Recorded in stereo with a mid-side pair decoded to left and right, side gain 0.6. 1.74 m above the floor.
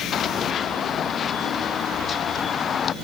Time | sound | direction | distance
0.1 | running footsteps | 40° left | ?